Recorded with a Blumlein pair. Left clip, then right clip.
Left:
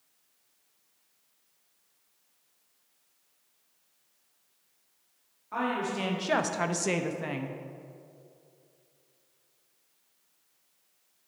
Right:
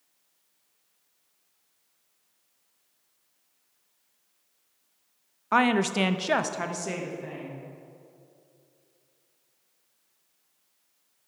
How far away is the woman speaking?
About 0.6 m.